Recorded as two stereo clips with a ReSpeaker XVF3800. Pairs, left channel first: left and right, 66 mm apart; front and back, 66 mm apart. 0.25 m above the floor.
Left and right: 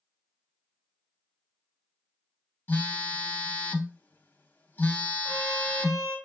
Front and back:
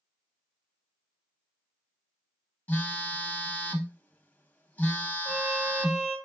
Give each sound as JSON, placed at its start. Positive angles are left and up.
{"t": 2.7, "sound": "a phone buzzing", "azimuth_deg": 45, "distance_m": 0.6}
{"t": 5.2, "sound": "a trumpet", "azimuth_deg": 180, "distance_m": 1.9}